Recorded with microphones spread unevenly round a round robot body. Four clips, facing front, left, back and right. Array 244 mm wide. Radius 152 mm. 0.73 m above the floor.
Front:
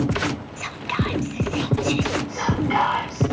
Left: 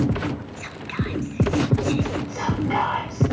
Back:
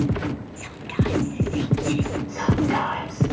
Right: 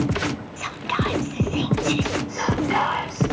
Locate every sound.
0.6 s whispering: 55° right, 0.6 m
2.3 s whispering: 155° left, 5 m